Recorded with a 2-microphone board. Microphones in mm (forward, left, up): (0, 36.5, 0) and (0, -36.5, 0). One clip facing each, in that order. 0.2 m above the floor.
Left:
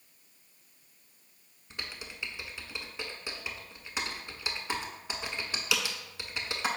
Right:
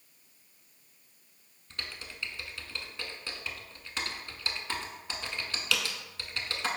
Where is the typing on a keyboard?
15° left (ahead or behind), 0.5 m.